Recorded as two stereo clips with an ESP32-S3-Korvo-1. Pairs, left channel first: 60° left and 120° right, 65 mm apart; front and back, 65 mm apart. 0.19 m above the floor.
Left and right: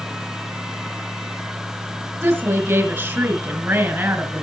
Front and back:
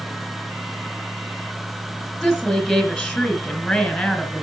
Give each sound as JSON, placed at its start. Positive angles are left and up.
{"t": 2.2, "sound": "a woman speaking", "azimuth_deg": -90, "distance_m": 2.5}